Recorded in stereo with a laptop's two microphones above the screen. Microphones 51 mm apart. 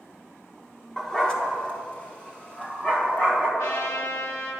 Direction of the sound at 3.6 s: 80° left.